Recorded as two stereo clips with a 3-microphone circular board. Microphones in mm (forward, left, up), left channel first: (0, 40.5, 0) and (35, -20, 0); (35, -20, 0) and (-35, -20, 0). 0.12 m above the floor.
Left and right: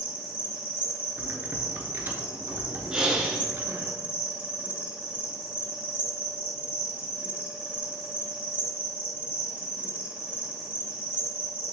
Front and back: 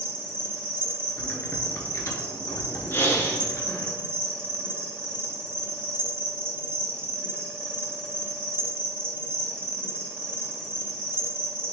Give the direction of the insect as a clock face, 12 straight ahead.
4 o'clock.